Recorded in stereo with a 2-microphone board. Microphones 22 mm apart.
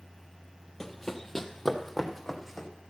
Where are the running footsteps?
15° left (ahead or behind), 1.0 m; by 2.7 s 5° right (ahead or behind), 2 m.